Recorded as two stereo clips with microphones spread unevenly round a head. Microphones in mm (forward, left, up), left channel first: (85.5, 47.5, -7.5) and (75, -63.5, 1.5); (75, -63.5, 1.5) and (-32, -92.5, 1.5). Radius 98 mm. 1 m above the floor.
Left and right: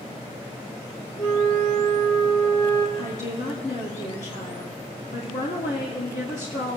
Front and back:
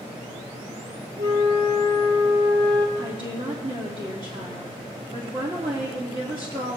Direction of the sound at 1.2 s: 150° left.